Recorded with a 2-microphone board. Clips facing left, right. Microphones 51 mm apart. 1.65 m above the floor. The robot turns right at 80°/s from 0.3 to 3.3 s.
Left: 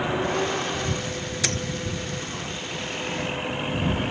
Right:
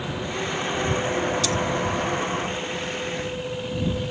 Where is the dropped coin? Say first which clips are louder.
Right 3 dB; 60° left (ahead or behind); by 1.6 s 50° left (ahead or behind).